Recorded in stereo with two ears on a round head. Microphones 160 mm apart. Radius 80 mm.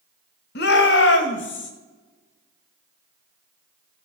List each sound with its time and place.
0.6 s a shout: 60° left (ahead or behind), 1.4 m; by 1.7 s 75° left (ahead or behind), 1.9 m